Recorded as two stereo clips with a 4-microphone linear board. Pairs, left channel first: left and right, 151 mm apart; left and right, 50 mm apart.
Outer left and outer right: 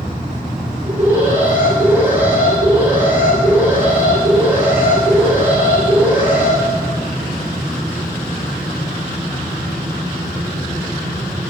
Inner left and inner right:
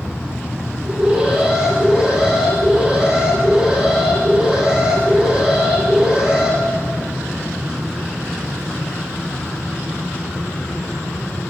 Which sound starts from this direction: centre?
An alarm, at 0.8 s.